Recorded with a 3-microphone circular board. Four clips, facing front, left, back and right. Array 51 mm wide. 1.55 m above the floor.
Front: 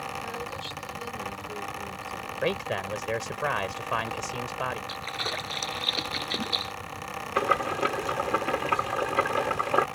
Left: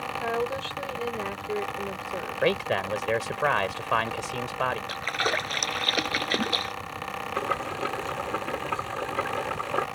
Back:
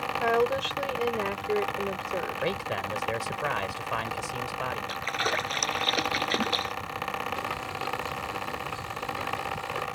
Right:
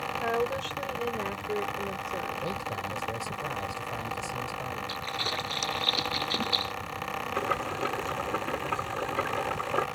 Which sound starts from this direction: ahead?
Boiling, at 7.4 s.